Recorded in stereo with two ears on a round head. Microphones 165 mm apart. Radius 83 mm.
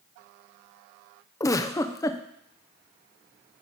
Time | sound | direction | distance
1.4 | a giggle | 20° left (ahead or behind) | 0.6 m